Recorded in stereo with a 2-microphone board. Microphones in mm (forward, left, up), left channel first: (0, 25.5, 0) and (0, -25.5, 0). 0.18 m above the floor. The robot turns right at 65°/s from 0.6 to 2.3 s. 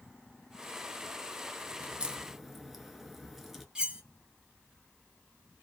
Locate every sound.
1.8 s a crack: 35° right (ahead or behind), 0.6 m; by 3.6 s centre (ahead or behind), 0.6 m
3.8 s cutlery clinking: 15° right (ahead or behind), 0.6 m